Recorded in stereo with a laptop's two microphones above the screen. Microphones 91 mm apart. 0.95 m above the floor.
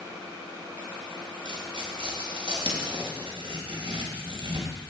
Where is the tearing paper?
65° right (ahead or behind), 3.5 m.